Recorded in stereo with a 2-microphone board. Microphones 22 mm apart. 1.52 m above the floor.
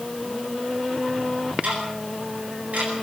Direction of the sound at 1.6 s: 85° right.